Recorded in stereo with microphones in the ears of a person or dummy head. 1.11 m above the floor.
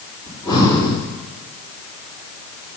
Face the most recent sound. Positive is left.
turn(degrees=20)  # may be behind; listen again after turning